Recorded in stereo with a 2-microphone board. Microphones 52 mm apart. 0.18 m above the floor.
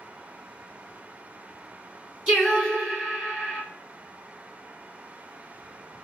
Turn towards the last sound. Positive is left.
turn(degrees=-15)  # may be behind; listen again after turning